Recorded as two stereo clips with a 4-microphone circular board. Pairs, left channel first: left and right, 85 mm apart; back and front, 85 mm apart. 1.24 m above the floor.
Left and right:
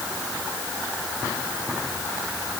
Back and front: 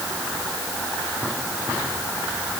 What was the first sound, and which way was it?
Only background noise.